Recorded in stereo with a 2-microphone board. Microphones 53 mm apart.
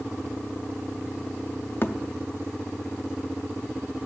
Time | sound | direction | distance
1.8 | a thud | 40° left (ahead or behind) | 0.6 m